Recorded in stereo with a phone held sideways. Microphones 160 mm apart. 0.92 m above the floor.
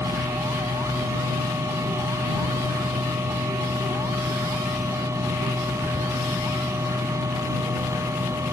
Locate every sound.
0.0 s a machine running: 20° right (ahead or behind)